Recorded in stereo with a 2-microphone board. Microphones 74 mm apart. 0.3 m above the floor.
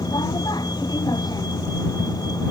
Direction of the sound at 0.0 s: 65° left (ahead or behind).